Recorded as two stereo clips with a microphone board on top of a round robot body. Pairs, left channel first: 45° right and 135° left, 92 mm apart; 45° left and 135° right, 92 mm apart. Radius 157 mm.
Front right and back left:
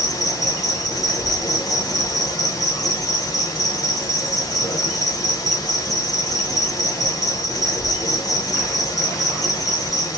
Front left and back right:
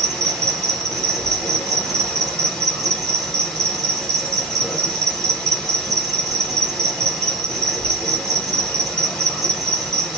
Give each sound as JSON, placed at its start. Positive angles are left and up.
{"t": 0.0, "sound": "an insect", "azimuth_deg": -40, "distance_m": 1.5}